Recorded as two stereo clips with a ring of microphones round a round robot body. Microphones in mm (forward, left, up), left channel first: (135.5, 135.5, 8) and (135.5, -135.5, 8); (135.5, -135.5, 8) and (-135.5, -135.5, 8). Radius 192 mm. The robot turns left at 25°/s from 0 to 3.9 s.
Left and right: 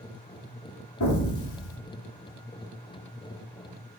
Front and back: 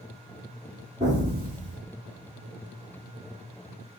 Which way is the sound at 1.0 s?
100° left.